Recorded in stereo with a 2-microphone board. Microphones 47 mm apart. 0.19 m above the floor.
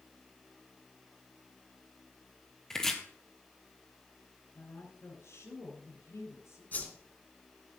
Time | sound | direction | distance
2.7 | chopping | 10° left (ahead or behind) | 2 m
4.5 | a woman speaking | 70° left (ahead or behind) | 9 m
6.7 | a whoosh | 35° left (ahead or behind) | 3.5 m